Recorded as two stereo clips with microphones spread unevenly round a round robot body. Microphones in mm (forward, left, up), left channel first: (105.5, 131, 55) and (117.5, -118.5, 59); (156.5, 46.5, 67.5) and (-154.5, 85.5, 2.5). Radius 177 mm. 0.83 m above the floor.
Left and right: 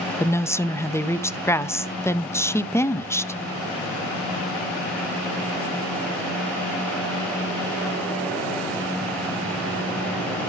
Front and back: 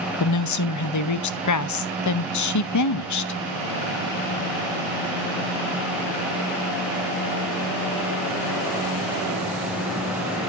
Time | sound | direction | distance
0.2 | a woman speaking | 15° left | 0.8 m